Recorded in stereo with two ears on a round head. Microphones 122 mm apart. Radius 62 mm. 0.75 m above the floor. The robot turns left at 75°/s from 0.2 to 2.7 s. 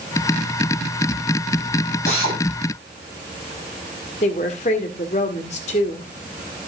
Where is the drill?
55° left (ahead or behind), 6 m; by 2.4 s 30° left (ahead or behind), 6 m.